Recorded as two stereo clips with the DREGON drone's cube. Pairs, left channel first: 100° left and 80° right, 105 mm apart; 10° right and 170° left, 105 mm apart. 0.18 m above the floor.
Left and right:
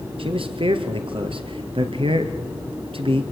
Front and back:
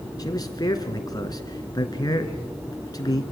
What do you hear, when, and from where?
0.2 s a man speaking: 60° right, 2.5 m